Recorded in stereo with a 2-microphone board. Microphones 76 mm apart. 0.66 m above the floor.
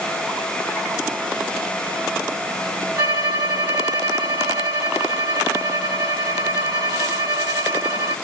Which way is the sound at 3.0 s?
60° right (ahead or behind).